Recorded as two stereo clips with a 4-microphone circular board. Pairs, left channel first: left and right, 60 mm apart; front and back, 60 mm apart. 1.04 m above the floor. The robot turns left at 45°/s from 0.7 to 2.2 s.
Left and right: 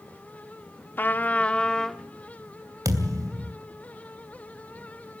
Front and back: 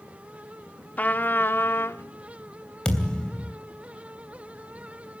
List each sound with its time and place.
1.0 s a trumpet: 50° left, 0.7 m; by 2.0 s 5° left, 0.7 m
2.9 s a thud: 75° right, 2.5 m